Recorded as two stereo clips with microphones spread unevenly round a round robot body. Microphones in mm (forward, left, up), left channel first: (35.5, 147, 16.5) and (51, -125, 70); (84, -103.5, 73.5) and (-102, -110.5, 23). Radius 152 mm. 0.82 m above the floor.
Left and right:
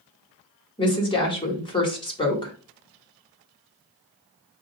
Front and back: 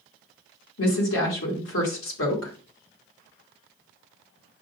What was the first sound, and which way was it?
A woman speaking, 25° left.